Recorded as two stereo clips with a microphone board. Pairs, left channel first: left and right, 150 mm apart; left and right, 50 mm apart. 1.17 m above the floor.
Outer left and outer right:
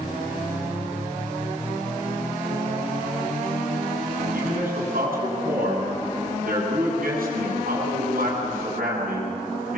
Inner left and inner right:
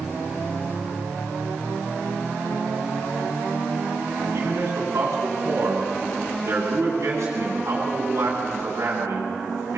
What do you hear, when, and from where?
4.3 s a man speaking: 75° right (ahead or behind), 8.5 m